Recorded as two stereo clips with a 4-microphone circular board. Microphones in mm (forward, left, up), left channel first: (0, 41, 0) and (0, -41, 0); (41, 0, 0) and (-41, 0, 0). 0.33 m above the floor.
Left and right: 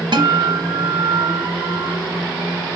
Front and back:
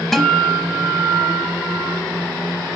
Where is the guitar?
85° right, 0.8 m.